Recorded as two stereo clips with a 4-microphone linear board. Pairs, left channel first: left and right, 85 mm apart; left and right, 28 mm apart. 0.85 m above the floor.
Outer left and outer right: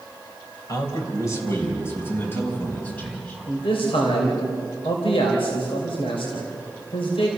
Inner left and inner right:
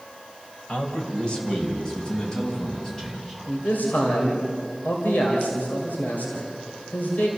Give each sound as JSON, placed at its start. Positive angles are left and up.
{"t": 0.7, "sound": "a man speaking", "side_deg": 40, "distance_m": 3.5}
{"t": 3.5, "sound": "a man speaking", "side_deg": 80, "distance_m": 3.0}